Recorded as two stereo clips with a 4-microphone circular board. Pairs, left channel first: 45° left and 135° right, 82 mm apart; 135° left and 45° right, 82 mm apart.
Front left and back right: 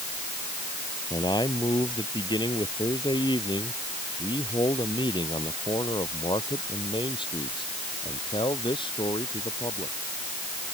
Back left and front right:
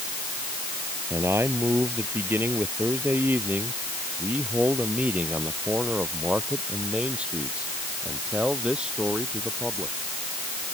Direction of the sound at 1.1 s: 15° left.